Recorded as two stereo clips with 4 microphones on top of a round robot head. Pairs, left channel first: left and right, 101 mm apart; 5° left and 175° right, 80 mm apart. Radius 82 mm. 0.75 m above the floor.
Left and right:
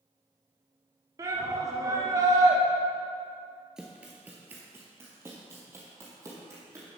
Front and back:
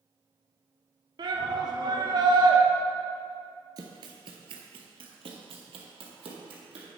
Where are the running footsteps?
175° right, 0.8 m; by 6.9 s 160° right, 2 m.